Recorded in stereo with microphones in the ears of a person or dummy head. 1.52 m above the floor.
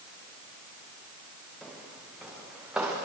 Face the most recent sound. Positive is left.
turn(degrees=-10)  # may be behind; listen again after turning